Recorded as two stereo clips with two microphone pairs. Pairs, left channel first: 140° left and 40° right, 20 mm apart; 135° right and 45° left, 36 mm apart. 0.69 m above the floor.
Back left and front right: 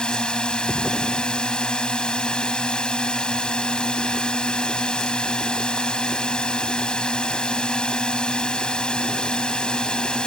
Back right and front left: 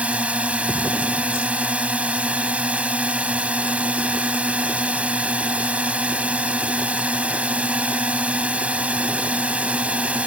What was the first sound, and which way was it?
A drone, 100° left.